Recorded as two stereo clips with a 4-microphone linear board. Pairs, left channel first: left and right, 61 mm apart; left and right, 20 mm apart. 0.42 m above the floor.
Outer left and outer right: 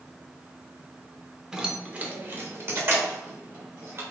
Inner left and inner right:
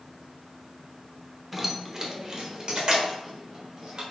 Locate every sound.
1.5 s keys jangling: 10° right (ahead or behind), 0.6 m; by 4.0 s 40° right (ahead or behind), 1.3 m